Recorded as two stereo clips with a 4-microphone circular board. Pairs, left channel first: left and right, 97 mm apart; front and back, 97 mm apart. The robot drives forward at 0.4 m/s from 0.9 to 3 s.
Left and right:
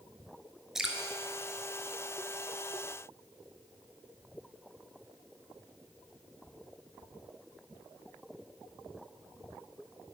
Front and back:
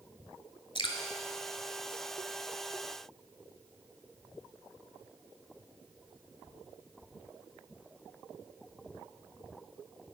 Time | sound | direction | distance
0.8 | dripping | 10° right | 1.1 m